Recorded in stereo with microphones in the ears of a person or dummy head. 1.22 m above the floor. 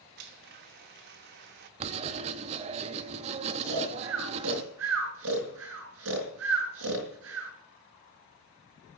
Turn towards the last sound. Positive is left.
turn(degrees=-80)